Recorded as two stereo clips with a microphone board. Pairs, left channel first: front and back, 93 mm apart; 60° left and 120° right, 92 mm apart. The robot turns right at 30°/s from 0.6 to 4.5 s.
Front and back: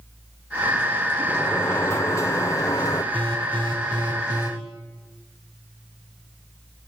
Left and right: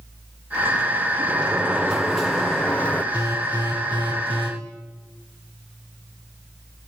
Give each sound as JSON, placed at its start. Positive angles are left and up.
{"t": 1.3, "sound": "a sliding door", "azimuth_deg": -60, "distance_m": 1.0}
{"t": 3.1, "sound": "an alarm", "azimuth_deg": -175, "distance_m": 7.5}